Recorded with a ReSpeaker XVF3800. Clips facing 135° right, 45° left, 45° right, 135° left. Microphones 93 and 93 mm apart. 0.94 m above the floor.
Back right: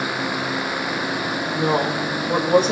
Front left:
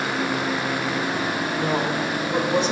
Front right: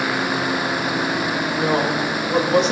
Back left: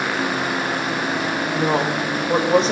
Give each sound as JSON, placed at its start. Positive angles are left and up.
{"t": 1.5, "sound": "a woman speaking", "azimuth_deg": -170, "distance_m": 1.4}